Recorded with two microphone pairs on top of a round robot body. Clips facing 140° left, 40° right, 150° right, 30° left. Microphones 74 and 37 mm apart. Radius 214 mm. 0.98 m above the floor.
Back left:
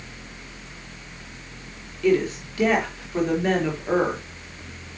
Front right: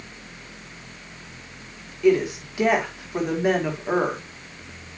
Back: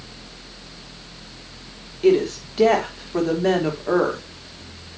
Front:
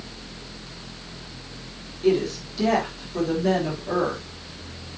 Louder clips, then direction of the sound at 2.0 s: Front right 1 dB, back 4 dB; 115° right.